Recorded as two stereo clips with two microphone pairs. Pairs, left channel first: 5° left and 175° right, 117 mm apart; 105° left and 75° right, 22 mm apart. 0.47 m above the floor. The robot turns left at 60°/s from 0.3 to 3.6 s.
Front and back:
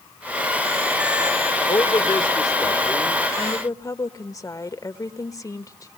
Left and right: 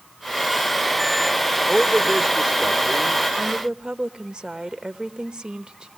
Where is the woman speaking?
30° right, 1.3 m; by 5.9 s 45° right, 1.3 m.